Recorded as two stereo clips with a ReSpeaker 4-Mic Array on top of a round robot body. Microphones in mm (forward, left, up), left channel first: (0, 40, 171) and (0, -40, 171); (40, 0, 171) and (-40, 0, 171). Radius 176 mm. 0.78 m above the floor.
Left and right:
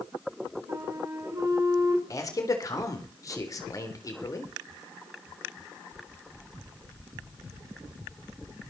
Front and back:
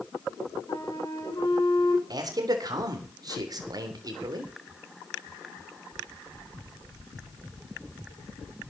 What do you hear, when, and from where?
0.7 s a flute: 40° right, 4 m
2.1 s a man speaking: 140° left, 3.5 m